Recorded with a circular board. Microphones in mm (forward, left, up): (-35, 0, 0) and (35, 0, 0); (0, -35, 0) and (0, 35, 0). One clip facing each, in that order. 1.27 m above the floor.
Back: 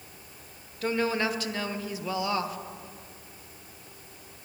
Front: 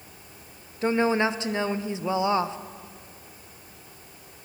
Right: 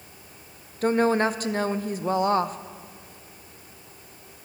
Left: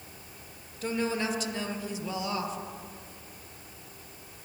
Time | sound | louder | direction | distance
0.8 | a woman speaking | front 5 dB, right 9 dB | 60° right | 0.6 m